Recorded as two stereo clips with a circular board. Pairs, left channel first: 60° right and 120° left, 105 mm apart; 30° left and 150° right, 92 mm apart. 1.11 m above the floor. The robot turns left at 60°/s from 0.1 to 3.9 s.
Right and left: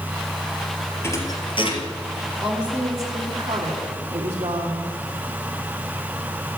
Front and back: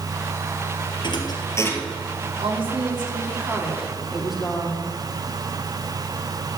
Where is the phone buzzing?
I don't hear a phone buzzing.